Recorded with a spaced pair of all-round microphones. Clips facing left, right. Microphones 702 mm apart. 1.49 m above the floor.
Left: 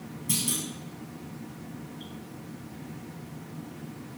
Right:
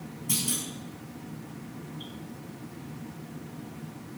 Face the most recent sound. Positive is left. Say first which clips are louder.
# left 1 dB
turn(degrees=5)  # may be behind; listen again after turning